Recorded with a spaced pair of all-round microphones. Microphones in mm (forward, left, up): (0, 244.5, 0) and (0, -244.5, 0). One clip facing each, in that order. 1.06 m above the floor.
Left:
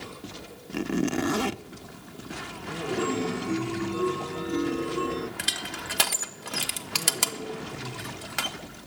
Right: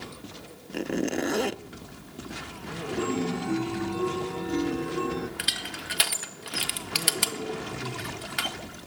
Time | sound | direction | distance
0.7 | a zipper | 25° left (ahead or behind) | 0.5 m
3.0 | a chime | 10° right (ahead or behind) | 1.4 m
5.4 | crushing | 65° left (ahead or behind) | 1.6 m